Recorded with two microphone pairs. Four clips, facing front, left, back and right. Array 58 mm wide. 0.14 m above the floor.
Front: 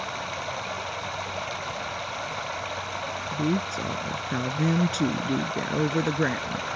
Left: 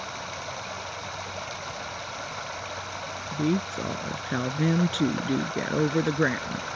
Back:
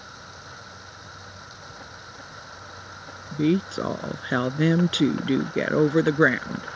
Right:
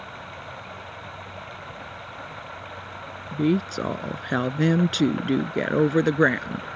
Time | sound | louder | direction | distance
0.0 | running water | left 3 dB, front 11 dB | 15° left | ?
3.3 | a woman speaking | right 4 dB, back 5 dB | 145° right | ?